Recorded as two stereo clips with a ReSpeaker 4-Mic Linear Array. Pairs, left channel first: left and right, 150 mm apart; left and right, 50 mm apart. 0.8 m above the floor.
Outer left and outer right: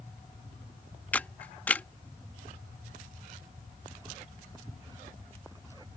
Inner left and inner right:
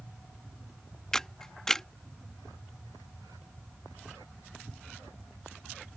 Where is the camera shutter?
10° left (ahead or behind).